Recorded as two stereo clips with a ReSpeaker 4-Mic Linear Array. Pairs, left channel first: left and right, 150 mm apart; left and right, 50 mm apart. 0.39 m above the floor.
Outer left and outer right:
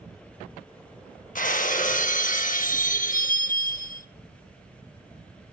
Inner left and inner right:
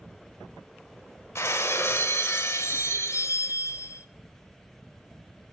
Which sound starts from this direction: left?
Breaking glass, at 1.4 s.